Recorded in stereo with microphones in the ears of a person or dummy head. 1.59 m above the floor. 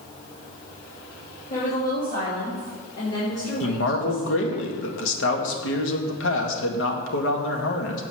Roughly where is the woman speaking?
Left.